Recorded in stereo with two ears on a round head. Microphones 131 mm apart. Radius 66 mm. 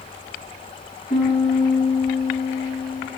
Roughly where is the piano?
Left.